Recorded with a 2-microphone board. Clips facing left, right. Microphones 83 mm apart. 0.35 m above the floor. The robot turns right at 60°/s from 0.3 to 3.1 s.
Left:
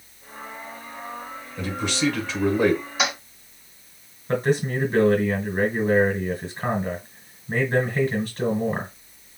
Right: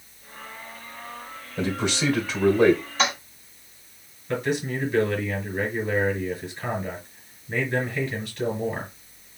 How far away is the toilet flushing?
About 1.6 m.